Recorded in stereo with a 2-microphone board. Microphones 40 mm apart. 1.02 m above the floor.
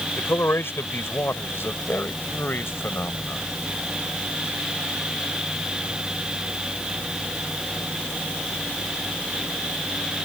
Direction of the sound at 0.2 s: 80° left.